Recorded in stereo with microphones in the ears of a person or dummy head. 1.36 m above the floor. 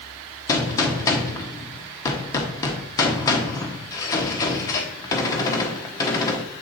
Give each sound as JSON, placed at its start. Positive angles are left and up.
{"t": 0.5, "sound": "a gunshot", "side_deg": 25, "distance_m": 1.0}